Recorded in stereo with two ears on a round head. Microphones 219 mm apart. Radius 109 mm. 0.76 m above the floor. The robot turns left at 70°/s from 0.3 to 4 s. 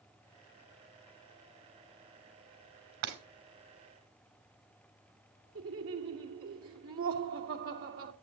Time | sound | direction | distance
3.0 | breaking glass | 50° right (ahead or behind) | 2.5 m
5.5 | laughter | 60° right (ahead or behind) | 2.5 m